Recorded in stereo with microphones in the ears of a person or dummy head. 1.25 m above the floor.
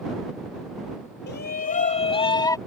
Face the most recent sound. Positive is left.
turn(degrees=15)  # may be behind; listen again after turning